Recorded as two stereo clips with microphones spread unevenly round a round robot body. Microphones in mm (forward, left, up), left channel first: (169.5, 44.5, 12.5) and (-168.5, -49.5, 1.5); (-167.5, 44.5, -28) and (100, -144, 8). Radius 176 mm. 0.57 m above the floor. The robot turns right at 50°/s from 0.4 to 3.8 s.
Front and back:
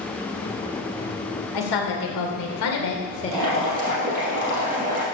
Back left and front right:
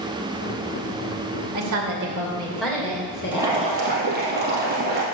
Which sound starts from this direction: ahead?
A woman speaking, at 1.5 s.